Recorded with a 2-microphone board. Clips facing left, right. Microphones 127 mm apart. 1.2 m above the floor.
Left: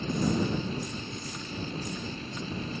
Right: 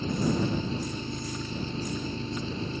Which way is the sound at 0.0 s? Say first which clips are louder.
Right 1 dB; 30° right (ahead or behind).